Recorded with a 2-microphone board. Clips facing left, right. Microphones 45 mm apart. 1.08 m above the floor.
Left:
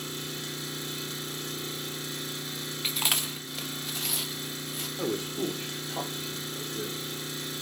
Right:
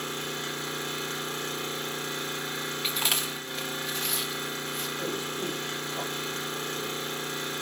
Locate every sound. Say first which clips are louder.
0.0 s an engine running: right 4 dB; 40° right (ahead or behind), 2 m
2.8 s chewing: even; centre (ahead or behind), 1.0 m
5.0 s a man speaking: left 5 dB; 40° left (ahead or behind), 2.5 m